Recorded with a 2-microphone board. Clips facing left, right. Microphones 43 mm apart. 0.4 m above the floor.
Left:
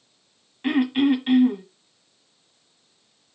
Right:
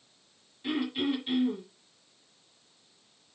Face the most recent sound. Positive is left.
turn(degrees=60)  # may be behind; listen again after turning